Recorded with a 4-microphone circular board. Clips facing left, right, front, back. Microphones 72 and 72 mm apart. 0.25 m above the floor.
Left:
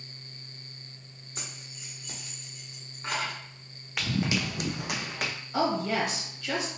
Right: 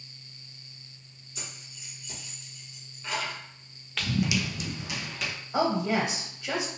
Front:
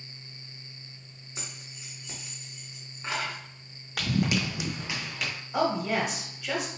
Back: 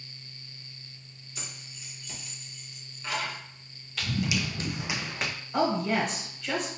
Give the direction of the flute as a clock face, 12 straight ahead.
I don't hear a flute.